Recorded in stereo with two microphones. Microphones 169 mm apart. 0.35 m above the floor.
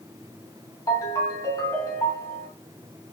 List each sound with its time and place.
0.9 s a ringtone: 20° left (ahead or behind), 1.9 m